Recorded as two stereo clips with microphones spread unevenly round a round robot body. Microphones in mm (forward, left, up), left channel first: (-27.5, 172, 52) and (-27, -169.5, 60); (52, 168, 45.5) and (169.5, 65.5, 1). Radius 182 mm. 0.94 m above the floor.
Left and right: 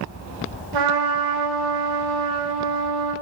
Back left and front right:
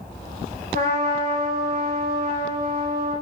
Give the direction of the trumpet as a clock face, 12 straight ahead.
3 o'clock.